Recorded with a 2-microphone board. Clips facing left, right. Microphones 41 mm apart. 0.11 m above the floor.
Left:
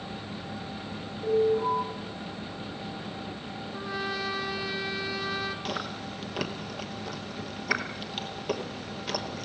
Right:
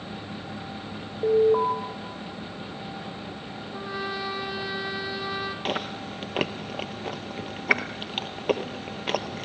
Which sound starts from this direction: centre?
A trumpet, at 3.7 s.